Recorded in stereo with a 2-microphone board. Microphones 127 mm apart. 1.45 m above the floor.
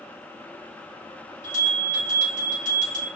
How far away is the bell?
About 1.4 m.